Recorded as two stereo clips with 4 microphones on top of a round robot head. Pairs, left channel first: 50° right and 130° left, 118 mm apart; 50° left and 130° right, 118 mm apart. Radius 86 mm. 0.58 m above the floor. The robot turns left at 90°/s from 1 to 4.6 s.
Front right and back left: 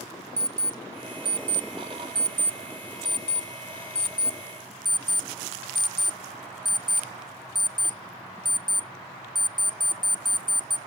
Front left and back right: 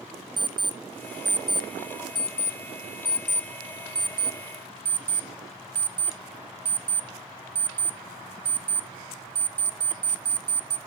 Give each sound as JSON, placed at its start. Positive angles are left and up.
{"t": 0.4, "sound": "an alarm clock", "azimuth_deg": -175, "distance_m": 0.7}